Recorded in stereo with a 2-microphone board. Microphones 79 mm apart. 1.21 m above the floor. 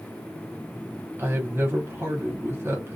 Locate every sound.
1.2 s a woman speaking: 30° right (ahead or behind), 1.0 m